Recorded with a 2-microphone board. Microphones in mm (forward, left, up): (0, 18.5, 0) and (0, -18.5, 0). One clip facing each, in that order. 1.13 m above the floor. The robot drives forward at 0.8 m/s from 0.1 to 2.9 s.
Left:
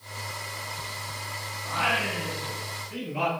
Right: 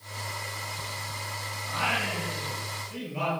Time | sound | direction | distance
1.6 | singing | 20° left (ahead or behind) | 6 m